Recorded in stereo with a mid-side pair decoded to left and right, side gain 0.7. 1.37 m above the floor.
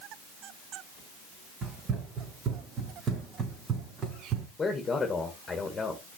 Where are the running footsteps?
40° right, 5.5 m; by 4.5 s 45° right, 4 m.